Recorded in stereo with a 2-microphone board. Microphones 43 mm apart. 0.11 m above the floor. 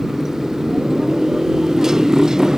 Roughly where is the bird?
I don't hear a bird.